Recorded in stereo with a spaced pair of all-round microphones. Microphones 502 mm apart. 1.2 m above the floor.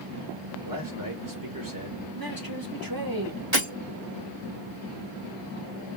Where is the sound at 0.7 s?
40° right (ahead or behind), 2.5 m.